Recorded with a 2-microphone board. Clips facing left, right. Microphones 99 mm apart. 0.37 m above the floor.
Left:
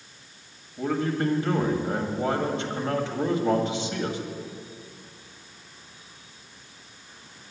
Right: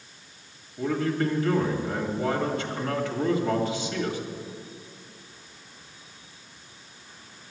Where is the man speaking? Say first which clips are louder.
Even; 20° left (ahead or behind), 1.9 m.